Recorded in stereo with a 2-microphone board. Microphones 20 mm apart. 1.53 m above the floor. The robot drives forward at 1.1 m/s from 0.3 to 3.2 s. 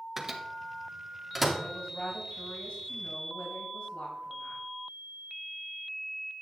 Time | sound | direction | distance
0.2 | a microwave | 20° right (ahead or behind) | 1.4 m
1.6 | a woman speaking | 70° left (ahead or behind) | 5 m